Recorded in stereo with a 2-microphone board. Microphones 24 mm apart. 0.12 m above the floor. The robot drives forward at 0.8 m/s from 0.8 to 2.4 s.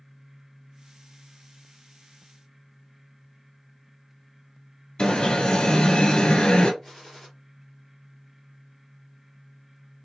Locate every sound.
5.0 s an alarm: 45° left (ahead or behind), 1.3 m
6.8 s a gunshot: 5° left (ahead or behind), 2.5 m